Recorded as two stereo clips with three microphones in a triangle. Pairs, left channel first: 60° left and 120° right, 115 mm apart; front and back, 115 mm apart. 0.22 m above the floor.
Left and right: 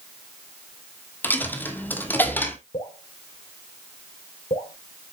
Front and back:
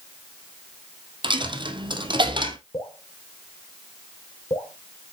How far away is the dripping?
About 4.5 m.